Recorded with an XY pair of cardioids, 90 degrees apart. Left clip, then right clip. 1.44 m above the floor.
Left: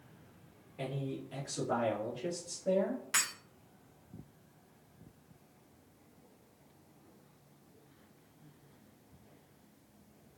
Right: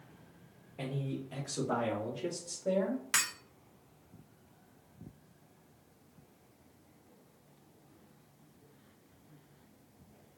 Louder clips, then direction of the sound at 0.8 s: Even; 25° right.